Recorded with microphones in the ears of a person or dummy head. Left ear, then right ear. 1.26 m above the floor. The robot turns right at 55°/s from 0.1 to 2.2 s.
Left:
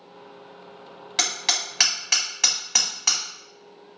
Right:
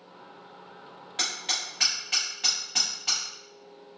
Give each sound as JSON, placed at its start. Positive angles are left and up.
{"t": 1.2, "sound": "hammering", "side_deg": 45, "distance_m": 0.8}